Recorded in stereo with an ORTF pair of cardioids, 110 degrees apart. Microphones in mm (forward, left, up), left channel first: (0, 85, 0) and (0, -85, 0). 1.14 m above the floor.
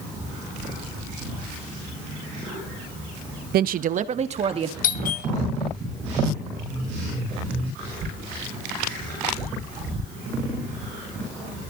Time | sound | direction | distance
3.5 | a woman speaking | 65° right | 0.9 m
4.8 | a doorbell | 55° left | 1.8 m